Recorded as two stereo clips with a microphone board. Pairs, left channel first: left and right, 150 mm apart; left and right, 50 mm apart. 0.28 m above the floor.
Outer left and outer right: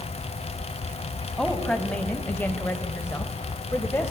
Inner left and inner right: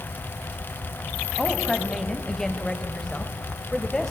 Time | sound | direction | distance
1.4 | a woman speaking | 5° left (ahead or behind) | 1.9 m